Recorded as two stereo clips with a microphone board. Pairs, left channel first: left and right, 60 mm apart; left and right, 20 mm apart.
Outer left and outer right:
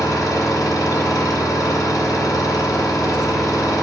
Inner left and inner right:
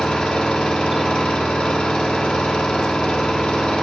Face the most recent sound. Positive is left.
turn(degrees=70)  # may be behind; listen again after turning